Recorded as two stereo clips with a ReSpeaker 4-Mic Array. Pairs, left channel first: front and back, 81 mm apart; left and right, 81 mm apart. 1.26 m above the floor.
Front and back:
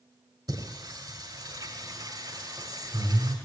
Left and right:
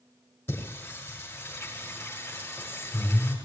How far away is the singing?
About 6.5 m.